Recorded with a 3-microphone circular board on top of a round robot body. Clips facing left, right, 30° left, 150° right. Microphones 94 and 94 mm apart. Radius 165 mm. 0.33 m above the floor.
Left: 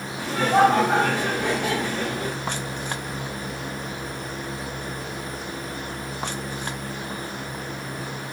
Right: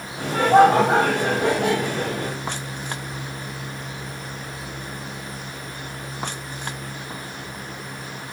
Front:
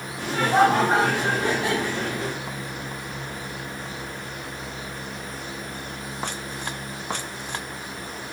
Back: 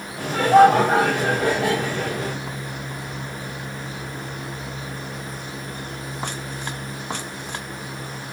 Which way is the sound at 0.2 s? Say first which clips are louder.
Right 4 dB, back 6 dB; 115° right.